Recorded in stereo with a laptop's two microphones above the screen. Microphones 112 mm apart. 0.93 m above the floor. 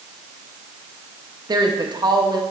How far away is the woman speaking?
About 0.7 m.